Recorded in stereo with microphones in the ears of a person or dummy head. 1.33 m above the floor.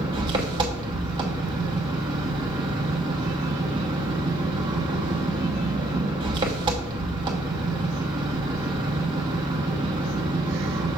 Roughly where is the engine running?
Right.